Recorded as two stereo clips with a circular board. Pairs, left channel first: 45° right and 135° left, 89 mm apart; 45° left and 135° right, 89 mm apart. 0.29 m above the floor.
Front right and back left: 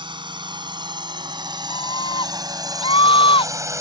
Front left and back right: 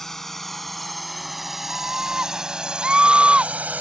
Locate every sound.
0.0 s a drone: 130° left; by 3.8 s 165° left
1.7 s a scream: 55° right